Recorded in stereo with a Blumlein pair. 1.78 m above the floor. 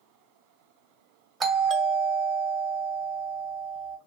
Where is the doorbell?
20° right, 0.8 m.